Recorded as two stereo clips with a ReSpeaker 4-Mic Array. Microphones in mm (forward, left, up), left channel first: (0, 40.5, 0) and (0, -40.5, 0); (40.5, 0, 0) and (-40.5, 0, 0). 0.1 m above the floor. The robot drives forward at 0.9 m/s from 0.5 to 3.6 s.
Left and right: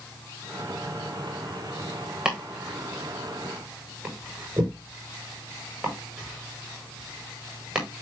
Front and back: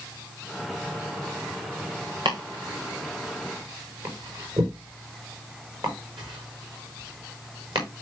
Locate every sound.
2.2 s chopping: 170° right, 4.5 m; by 7.9 s 175° right, 6 m